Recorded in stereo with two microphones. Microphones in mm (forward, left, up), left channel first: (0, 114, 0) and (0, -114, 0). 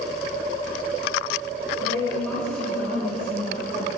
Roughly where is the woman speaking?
Centre.